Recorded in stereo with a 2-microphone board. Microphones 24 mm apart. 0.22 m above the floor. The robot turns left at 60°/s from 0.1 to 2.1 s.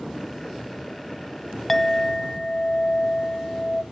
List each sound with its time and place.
1.7 s a clink: 15° left (ahead or behind), 0.6 m; by 3.8 s 25° left (ahead or behind), 0.6 m